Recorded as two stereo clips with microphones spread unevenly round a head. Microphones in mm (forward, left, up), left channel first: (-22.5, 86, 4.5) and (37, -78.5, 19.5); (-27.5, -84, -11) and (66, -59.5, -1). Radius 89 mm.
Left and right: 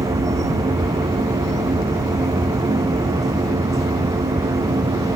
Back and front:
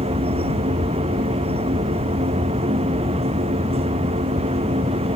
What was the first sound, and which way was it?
A machine running, straight ahead.